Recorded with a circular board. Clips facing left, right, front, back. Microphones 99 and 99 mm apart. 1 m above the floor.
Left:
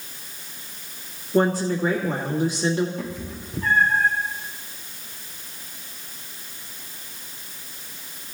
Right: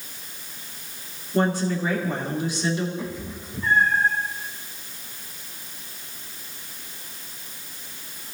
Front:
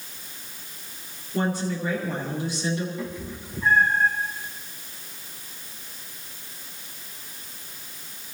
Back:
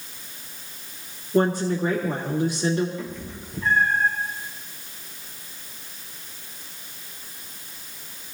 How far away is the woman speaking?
About 2.5 m.